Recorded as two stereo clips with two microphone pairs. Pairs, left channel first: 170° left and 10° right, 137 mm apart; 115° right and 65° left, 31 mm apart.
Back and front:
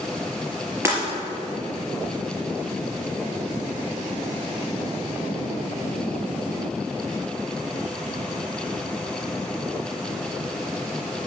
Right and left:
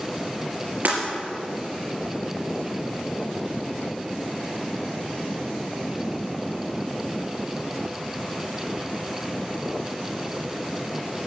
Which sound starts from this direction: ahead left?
Breaking glass, at 0.8 s.